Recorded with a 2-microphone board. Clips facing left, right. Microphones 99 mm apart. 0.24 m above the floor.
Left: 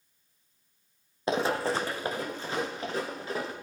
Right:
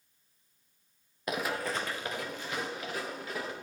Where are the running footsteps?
30° left (ahead or behind), 0.6 m.